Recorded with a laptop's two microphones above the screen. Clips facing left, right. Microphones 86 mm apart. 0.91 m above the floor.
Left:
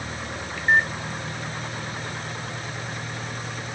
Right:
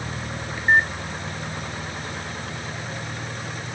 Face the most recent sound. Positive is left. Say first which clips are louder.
# right 2 dB
turn(degrees=-15)  # may be behind; listen again after turning